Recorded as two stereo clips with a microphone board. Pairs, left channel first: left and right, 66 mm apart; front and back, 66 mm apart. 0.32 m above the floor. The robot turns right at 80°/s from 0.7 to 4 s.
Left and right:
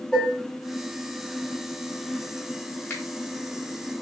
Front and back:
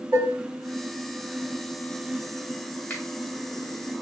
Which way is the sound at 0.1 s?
150° left.